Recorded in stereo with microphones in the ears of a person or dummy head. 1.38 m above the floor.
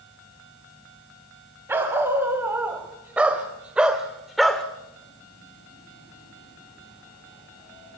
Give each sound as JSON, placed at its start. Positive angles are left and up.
{"t": 1.7, "sound": "a dog barking", "side_deg": -15, "distance_m": 3.5}